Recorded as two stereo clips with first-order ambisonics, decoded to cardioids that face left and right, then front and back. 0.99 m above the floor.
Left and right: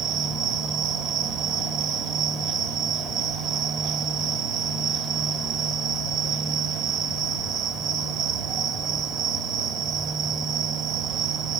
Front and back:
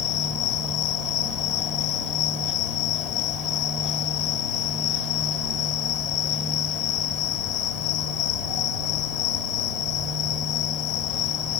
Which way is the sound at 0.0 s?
45° right.